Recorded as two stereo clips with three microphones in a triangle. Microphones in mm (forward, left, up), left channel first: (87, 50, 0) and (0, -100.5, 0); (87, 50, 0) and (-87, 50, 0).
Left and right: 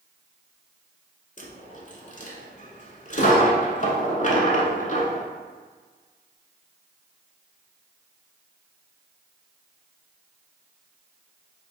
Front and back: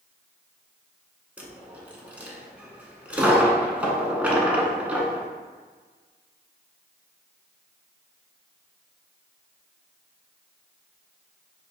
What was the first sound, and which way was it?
A dropped coin, 100° left.